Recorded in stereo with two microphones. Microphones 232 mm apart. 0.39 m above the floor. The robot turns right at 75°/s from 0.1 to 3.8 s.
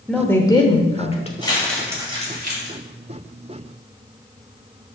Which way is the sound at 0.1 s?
5° left (ahead or behind).